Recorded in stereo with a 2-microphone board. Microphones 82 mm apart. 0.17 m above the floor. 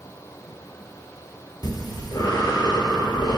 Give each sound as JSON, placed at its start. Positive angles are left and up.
{"t": 1.6, "sound": "breathing", "side_deg": 60, "distance_m": 0.6}